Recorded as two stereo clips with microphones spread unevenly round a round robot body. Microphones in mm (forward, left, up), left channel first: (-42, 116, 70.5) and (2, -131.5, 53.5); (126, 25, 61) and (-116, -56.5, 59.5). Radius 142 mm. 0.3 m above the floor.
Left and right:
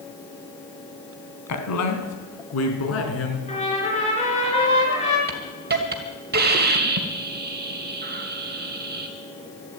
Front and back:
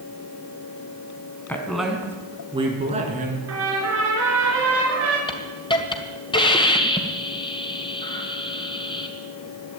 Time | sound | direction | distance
1.5 | a woman speaking | 100° left | 3 m
3.5 | a trumpet | 165° left | 4.5 m
5.3 | a hiss | 50° right | 2 m